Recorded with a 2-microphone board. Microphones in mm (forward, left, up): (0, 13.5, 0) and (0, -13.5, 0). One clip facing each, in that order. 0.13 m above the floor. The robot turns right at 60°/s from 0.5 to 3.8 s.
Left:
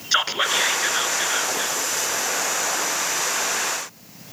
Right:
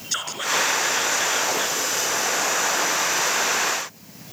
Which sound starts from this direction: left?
Whispering, at 0.1 s.